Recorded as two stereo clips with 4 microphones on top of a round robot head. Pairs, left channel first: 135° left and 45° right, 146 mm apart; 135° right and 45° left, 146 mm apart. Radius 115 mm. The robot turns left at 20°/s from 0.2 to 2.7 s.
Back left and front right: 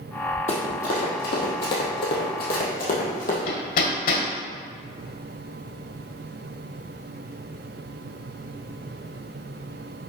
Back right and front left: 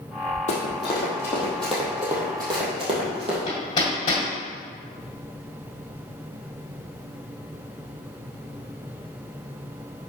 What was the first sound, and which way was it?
Running footsteps, straight behind.